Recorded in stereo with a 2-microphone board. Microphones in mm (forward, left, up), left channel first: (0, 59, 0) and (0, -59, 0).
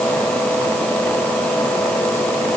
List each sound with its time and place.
Only background noise.